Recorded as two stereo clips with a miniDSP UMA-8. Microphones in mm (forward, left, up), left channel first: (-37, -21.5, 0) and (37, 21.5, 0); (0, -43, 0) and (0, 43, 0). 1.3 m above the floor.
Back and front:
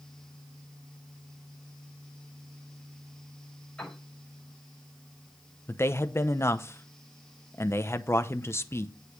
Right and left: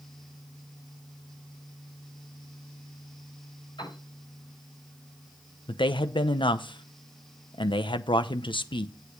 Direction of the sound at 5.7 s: 90° right.